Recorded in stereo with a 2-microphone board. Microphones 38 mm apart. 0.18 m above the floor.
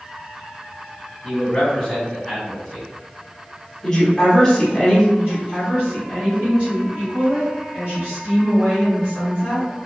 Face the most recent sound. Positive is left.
turn(degrees=-40)  # may be behind; listen again after turning